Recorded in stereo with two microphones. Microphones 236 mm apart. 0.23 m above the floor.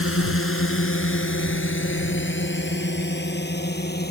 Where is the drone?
65° left (ahead or behind); by 4.1 s 45° left (ahead or behind).